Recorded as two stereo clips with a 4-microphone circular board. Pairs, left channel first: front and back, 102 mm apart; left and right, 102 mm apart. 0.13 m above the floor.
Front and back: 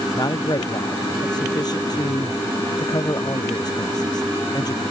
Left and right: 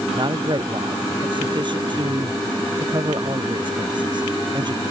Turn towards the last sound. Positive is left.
turn(degrees=-50)